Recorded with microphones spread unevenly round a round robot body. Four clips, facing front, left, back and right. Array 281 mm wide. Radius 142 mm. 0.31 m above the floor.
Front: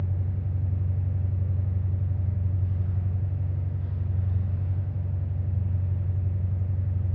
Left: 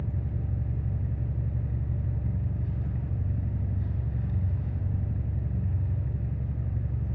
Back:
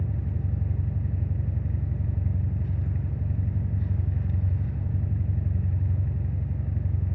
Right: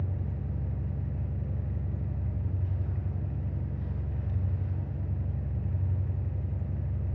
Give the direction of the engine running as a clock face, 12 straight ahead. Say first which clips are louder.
Left 2 dB, back 1 dB; 7 o'clock.